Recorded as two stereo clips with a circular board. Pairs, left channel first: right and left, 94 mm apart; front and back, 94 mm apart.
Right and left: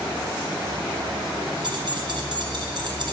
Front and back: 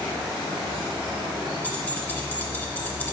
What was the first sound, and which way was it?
Keys jangling, 75° left.